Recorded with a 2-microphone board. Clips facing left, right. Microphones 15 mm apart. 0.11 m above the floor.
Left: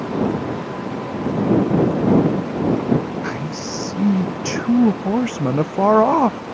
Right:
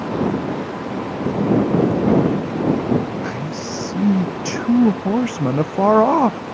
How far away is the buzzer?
I don't hear a buzzer.